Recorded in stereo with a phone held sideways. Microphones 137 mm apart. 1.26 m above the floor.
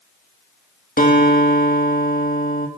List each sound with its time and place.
1.0 s a guitar: 80° left, 3 m